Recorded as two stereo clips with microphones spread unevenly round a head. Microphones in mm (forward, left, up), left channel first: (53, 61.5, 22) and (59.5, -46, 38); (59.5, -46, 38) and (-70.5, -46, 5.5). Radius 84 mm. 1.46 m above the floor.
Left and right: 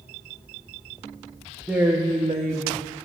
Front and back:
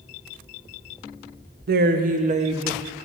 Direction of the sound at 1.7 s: 175° right.